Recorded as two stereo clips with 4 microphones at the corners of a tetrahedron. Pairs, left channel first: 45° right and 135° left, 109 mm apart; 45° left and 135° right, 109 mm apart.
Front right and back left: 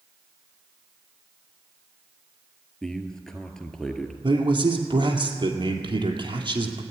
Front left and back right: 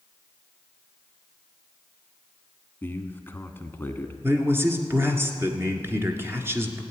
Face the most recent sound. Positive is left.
turn(degrees=165)